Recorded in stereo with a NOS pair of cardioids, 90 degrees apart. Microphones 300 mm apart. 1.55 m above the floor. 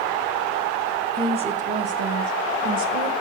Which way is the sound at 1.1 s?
15° right.